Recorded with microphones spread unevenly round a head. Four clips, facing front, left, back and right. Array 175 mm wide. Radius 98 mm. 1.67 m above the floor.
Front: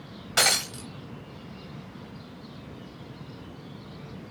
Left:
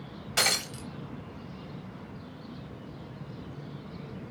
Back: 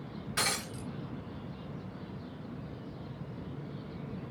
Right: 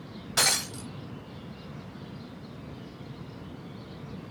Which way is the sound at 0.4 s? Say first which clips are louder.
Even, front 8 dB; 5° left.